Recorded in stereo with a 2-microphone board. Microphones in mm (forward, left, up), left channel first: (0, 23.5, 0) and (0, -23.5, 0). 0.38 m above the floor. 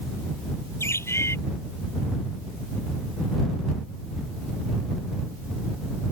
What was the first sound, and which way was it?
A bird, 75° left (ahead or behind).